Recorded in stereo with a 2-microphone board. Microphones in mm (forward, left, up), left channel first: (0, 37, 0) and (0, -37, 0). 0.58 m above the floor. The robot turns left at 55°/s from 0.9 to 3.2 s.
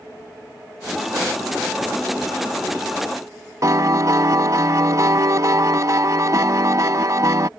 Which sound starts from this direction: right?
A piano, at 3.6 s.